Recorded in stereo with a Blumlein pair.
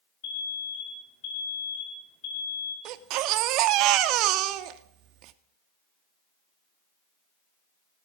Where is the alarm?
50° left, 5 m.